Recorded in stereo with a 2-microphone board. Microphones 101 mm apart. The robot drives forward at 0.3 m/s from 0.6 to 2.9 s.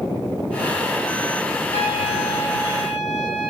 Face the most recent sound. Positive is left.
turn(degrees=60)  # may be behind; listen again after turning